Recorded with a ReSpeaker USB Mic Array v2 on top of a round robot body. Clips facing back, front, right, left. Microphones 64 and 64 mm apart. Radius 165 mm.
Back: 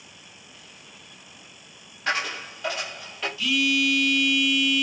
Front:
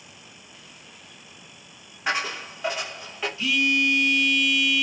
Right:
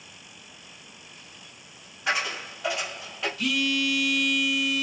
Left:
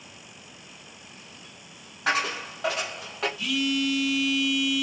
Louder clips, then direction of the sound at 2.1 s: Even, left 2 dB; 75° left.